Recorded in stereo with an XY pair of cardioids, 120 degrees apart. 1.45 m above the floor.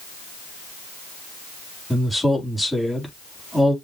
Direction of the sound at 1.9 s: Straight ahead.